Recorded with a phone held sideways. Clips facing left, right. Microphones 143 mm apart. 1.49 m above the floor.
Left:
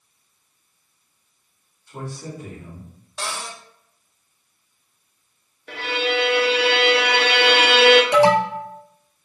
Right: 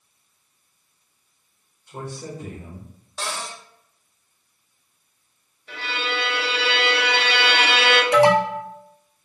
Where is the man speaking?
20° right (ahead or behind), 1.9 m; by 2.9 s 45° right (ahead or behind), 1.4 m.